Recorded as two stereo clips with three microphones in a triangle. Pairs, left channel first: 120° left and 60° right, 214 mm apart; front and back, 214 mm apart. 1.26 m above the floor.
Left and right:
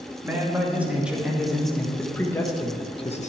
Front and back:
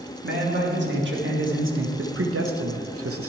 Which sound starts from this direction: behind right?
A man speaking, at 0.2 s.